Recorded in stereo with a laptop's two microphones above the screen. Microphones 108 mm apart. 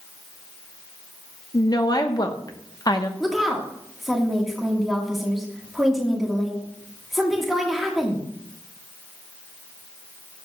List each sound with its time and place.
1.5 s a woman speaking: 35° left (ahead or behind), 0.8 m
3.2 s a woman speaking: centre (ahead or behind), 1.3 m